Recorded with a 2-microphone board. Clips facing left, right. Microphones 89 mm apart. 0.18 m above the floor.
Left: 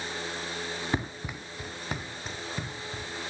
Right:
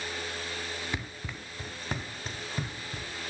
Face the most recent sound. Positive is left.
turn(degrees=-5)  # may be behind; listen again after turning